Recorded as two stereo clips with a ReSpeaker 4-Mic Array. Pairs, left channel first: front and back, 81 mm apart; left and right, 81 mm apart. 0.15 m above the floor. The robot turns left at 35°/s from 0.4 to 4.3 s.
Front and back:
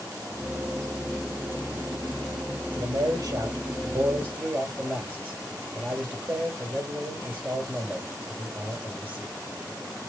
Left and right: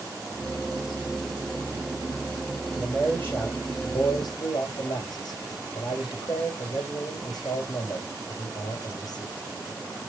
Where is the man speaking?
170° left, 3.5 m; by 9.4 s 115° left, 3.5 m.